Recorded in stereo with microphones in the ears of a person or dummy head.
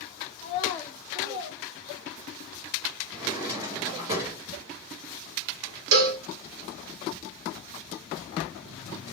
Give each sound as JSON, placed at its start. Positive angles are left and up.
{"t": 0.4, "sound": "a child speaking", "side_deg": 40, "distance_m": 0.6}
{"t": 3.1, "sound": "a drawer", "side_deg": -15, "distance_m": 1.1}
{"t": 5.9, "sound": "a cowbell", "side_deg": -70, "distance_m": 0.7}